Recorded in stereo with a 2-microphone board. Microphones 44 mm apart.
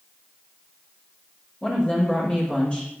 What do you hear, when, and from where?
1.6 s a woman speaking: 25° left (ahead or behind), 6 m